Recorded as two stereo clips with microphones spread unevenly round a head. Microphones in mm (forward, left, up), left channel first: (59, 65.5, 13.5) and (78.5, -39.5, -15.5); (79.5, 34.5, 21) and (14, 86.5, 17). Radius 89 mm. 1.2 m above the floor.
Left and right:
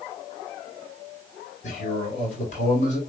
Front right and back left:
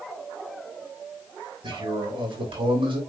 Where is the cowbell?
I don't hear a cowbell.